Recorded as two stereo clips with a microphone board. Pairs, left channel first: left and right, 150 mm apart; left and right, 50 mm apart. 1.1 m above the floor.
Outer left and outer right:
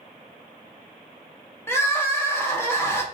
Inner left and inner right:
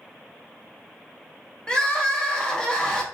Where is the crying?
15° left (ahead or behind), 0.6 m.